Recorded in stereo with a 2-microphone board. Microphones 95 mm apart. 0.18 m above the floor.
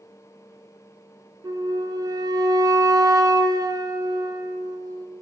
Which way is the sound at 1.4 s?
40° right (ahead or behind).